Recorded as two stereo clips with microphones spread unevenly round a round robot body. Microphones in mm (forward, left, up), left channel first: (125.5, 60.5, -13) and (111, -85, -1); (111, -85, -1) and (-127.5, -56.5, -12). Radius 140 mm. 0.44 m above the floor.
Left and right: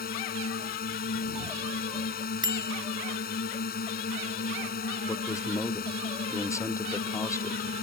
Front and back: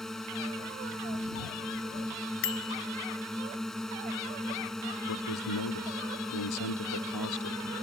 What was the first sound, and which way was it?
A drone, 80° left.